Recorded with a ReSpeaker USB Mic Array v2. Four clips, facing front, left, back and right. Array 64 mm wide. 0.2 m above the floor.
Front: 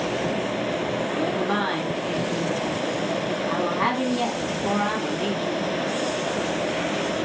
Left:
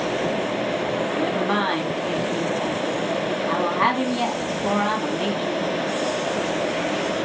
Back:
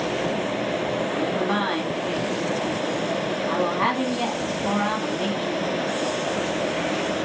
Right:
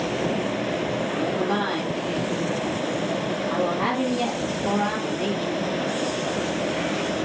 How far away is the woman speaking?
About 1.6 m.